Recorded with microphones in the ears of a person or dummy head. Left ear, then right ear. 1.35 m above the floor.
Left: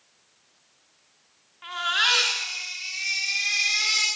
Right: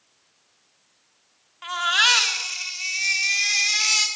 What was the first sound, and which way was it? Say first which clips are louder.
A baby crying: right 4 dB; 30° right (ahead or behind).